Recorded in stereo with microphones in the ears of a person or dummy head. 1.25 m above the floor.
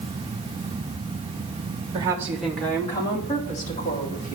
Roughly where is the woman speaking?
Right.